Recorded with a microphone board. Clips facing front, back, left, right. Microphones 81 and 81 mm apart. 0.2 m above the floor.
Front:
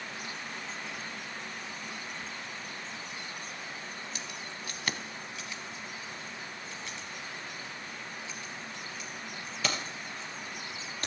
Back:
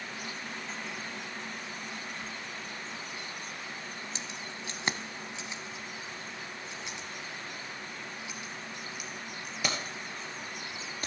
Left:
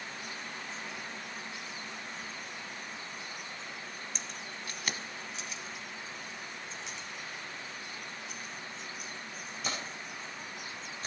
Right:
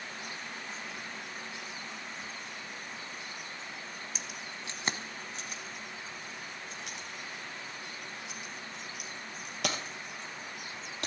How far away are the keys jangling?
About 0.8 m.